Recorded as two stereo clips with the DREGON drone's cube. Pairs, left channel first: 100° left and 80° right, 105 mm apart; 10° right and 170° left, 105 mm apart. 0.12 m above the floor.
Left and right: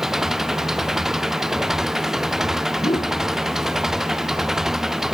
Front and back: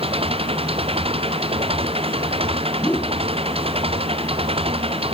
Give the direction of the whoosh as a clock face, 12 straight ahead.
10 o'clock.